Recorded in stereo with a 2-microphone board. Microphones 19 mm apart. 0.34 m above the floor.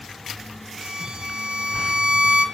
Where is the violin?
55° right (ahead or behind), 1.1 m.